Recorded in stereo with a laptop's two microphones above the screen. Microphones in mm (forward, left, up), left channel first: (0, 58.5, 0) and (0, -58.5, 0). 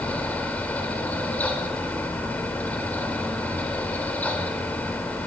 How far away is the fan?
About 3.5 m.